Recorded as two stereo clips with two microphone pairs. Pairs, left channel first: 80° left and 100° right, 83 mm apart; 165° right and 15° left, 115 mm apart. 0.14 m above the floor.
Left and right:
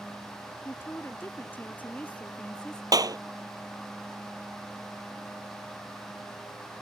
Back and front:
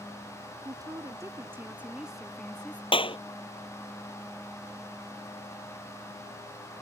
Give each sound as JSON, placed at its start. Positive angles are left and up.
{"t": 0.7, "sound": "a woman speaking", "azimuth_deg": 35}
{"t": 2.9, "sound": "a clap", "azimuth_deg": -130}